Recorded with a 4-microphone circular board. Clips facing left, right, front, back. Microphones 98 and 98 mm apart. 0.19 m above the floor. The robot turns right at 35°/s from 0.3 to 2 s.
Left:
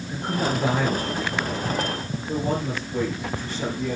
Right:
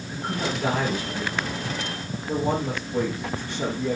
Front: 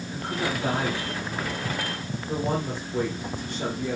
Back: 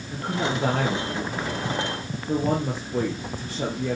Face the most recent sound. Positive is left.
turn(degrees=-165)